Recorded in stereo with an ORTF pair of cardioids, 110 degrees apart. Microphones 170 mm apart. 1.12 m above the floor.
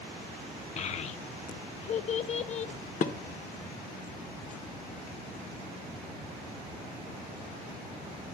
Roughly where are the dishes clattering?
Ahead left.